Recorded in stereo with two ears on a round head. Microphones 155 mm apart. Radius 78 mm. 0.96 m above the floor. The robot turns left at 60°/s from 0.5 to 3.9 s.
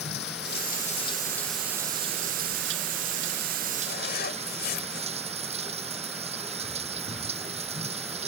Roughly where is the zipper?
Left.